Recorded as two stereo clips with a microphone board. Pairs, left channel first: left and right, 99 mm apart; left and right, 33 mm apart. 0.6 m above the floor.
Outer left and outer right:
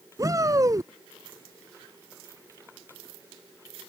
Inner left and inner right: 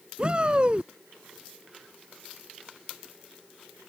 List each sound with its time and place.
0.2 s a shout: 35° right (ahead or behind)